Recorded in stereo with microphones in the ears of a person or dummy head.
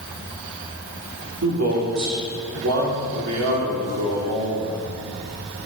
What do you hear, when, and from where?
1.4 s a man speaking: 90° right, 3 m